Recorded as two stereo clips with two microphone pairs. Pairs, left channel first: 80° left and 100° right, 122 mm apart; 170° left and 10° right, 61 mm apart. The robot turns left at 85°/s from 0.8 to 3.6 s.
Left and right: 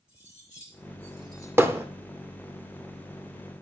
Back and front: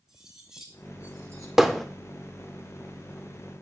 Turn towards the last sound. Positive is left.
turn(degrees=115)